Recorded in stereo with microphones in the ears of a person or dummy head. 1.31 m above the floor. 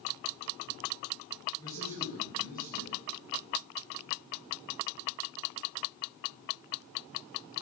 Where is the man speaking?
20° left (ahead or behind), 9.5 m.